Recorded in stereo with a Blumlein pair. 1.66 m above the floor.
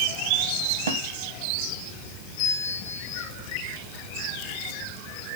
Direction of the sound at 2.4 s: 50° left.